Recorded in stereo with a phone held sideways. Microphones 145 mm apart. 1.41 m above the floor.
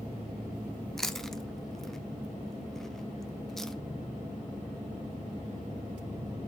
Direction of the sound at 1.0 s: 5° left (ahead or behind).